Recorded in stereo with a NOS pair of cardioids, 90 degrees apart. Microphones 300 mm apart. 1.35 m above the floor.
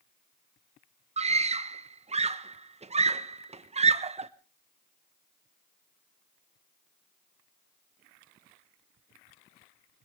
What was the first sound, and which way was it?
A scream, 20° right.